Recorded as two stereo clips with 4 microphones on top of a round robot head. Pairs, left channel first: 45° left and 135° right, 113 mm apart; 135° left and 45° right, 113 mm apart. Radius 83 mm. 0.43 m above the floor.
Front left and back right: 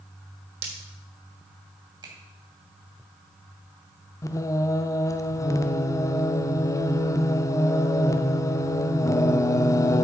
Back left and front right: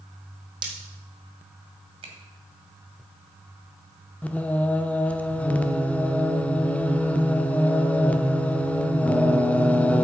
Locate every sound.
0.6 s breaking glass: 100° right, 2.5 m
2.0 s a finger snap: 80° right, 2.5 m
4.2 s singing: 65° left, 0.7 m